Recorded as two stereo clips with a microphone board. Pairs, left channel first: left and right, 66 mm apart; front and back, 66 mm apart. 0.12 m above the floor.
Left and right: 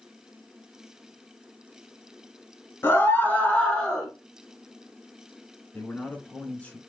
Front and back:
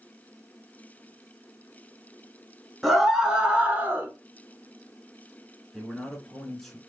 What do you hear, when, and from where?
2.8 s a scream: 95° left, 1.3 m; by 4.1 s 170° left, 1.2 m
5.7 s a man speaking: 80° left, 1.1 m